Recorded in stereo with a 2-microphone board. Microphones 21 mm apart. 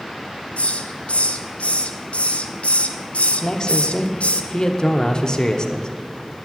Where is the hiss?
80° left, 0.6 m.